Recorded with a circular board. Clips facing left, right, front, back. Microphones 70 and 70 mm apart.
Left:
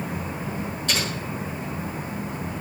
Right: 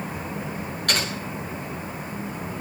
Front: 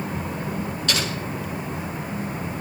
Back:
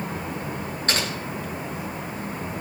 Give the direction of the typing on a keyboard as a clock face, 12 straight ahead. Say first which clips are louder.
Right 2 dB, back 1 dB; 4 o'clock.